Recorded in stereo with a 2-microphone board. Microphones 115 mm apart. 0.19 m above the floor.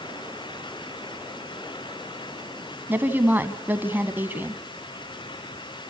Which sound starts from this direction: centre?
A woman speaking, at 2.9 s.